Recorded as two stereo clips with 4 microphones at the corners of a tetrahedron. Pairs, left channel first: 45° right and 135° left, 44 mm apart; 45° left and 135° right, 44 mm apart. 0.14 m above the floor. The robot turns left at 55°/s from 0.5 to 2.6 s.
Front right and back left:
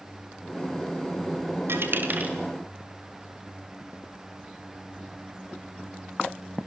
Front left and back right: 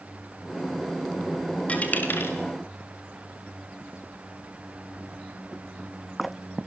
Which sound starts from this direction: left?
A dropped coin, at 1.7 s.